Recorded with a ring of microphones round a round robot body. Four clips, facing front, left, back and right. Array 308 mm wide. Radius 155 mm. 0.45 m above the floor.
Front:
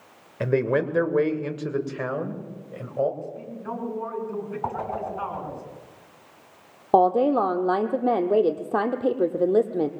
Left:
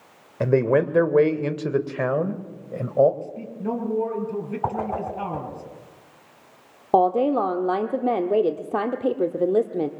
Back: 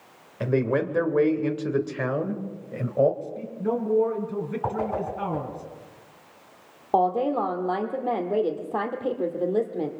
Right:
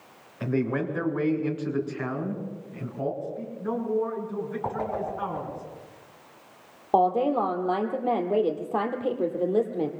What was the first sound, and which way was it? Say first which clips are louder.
A man speaking: left 8 dB, front 1 dB; 70° left.